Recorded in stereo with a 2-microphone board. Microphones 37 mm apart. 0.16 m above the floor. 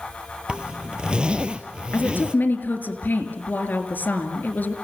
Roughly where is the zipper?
Right.